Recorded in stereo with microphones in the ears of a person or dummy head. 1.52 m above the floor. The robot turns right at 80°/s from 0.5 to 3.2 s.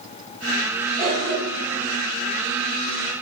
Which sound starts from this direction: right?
A cough, at 1.0 s.